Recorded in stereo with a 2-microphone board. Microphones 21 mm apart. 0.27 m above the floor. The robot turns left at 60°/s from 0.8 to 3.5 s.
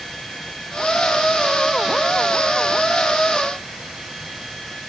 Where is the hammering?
I don't hear hammering.